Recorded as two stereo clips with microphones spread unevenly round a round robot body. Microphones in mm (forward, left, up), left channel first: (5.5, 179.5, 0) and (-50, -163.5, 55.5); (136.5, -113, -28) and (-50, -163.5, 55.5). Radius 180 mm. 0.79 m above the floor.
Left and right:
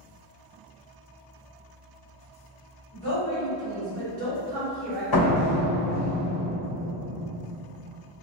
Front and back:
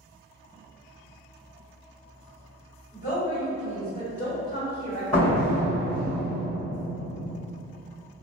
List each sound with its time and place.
2.9 s a woman speaking: 95° left, 1.8 m; by 5.0 s 5° right, 1.5 m
5.1 s a door slam: 100° left, 1.8 m